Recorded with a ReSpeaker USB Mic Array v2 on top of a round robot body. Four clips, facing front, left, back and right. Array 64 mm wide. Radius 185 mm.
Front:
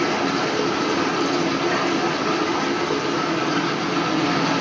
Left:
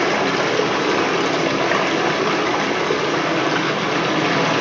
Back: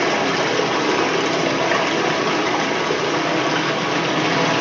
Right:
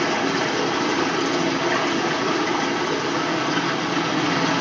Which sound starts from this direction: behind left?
Running water, at 0.0 s.